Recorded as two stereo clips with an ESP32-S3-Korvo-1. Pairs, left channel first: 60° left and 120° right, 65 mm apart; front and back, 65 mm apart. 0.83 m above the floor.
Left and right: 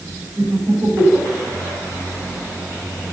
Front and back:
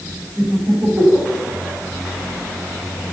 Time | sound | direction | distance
0.4 | laughter | 145° right | 4 m